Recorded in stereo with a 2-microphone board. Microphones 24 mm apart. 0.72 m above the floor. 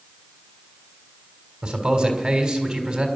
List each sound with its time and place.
1.6 s a man speaking: 25° right (ahead or behind), 4 m